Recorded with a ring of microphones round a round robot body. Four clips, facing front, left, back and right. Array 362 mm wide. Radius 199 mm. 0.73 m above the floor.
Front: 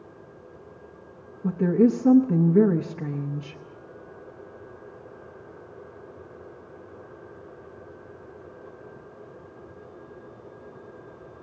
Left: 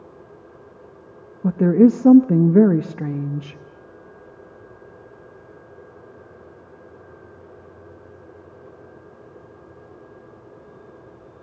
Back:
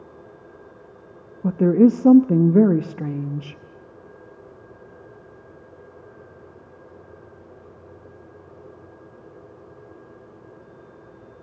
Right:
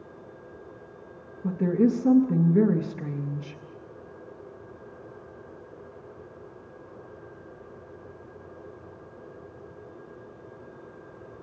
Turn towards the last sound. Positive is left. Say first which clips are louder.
# left 9 dB, back 5 dB
turn(degrees=130)